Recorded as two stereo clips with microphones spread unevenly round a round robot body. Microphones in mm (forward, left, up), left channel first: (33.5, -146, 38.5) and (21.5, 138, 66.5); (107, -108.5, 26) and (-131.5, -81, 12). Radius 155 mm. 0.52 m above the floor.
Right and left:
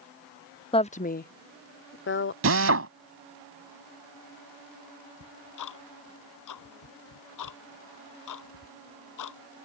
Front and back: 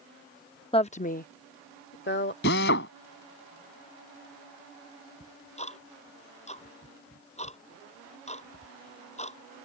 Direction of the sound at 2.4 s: 50° left.